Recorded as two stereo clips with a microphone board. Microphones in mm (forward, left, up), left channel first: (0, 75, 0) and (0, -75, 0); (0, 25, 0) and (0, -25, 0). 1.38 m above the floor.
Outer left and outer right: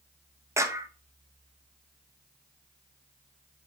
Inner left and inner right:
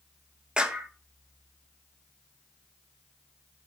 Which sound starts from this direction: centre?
A clap, at 0.6 s.